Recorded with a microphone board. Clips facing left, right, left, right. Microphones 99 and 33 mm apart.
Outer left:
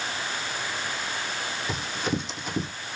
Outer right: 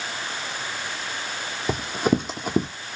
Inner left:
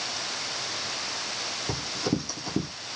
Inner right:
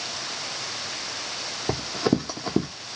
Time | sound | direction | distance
1.7 | running footsteps | 50° right (ahead or behind) | 0.6 m